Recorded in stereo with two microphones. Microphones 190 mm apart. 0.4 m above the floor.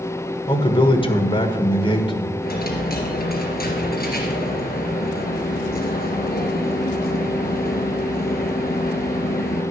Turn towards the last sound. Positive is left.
turn(degrees=55)  # may be behind; listen again after turning